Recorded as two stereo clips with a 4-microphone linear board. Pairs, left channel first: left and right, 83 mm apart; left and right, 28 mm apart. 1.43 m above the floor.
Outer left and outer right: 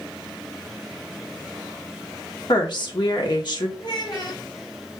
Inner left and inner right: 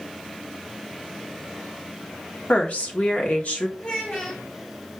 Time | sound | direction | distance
2.5 | a woman speaking | 60° left (ahead or behind) | 1.1 m
3.8 | a child speaking | 55° left (ahead or behind) | 1.2 m